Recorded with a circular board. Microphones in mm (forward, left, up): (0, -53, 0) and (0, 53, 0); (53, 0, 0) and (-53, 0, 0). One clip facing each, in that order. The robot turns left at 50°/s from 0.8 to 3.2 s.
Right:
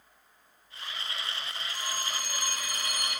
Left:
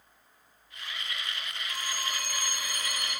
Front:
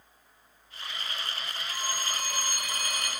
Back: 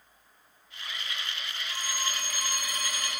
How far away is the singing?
I don't hear singing.